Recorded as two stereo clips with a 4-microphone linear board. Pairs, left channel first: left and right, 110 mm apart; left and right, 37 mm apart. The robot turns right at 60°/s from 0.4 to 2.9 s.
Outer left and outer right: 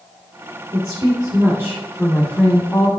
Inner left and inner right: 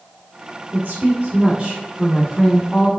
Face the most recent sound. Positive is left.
turn(degrees=50)